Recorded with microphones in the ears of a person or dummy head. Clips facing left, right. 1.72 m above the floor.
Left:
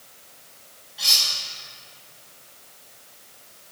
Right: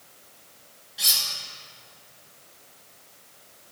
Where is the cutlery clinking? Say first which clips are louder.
Left 3 dB; 35° right (ahead or behind), 1.8 m.